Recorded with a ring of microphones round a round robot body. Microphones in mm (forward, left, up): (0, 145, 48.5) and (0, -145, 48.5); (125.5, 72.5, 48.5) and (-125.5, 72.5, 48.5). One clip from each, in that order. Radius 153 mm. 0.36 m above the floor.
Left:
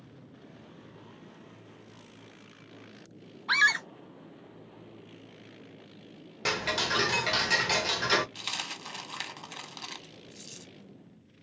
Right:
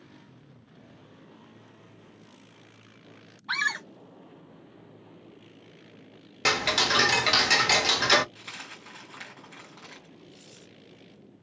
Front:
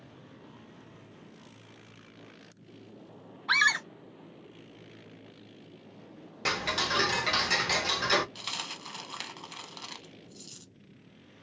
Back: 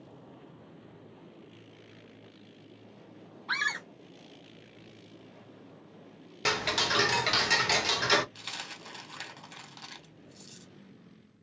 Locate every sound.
3.5 s a scream: 25° left, 0.9 m
6.5 s ticking: 120° right, 0.6 m
8.3 s a dropped coin: 75° left, 1.4 m